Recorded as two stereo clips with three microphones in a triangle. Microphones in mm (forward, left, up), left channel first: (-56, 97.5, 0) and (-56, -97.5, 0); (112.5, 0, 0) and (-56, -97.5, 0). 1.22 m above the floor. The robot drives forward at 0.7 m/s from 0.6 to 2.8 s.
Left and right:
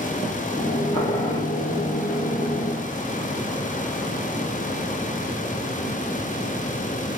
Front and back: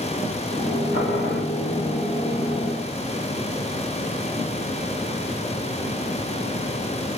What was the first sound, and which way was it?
Boiling, 30° left.